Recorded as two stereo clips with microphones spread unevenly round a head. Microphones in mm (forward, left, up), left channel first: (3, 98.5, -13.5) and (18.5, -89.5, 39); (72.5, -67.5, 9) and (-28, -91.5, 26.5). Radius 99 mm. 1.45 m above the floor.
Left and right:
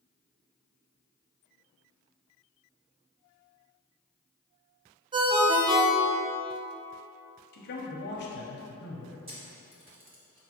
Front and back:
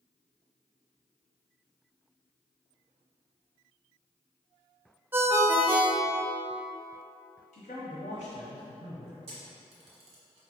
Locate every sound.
5.1 s a ringtone: 115° right, 0.5 m
7.5 s a man speaking: 55° left, 0.7 m
9.3 s a camera shutter: 150° right, 1.2 m